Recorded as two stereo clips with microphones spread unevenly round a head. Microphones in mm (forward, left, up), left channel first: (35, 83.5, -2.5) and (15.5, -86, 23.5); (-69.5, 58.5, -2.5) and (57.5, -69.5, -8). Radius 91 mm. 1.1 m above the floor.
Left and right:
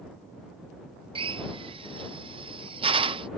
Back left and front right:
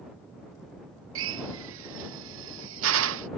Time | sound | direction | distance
1.1 | a drill | 35° right | ?